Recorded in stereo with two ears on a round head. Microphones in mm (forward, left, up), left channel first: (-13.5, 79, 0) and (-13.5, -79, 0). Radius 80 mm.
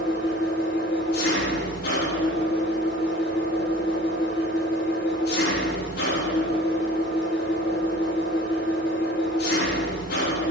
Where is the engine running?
60° left (ahead or behind), 9.5 m.